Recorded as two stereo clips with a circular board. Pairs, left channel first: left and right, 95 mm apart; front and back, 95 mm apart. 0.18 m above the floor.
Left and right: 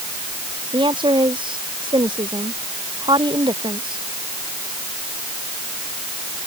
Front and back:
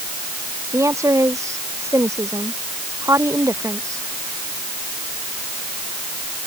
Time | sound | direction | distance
0.7 | a woman speaking | 120° right | ?